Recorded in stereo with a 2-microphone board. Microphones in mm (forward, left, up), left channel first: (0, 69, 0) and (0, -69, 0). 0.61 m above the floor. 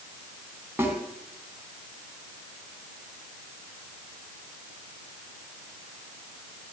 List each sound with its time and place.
0.8 s a snare drum: 15° right (ahead or behind), 3 m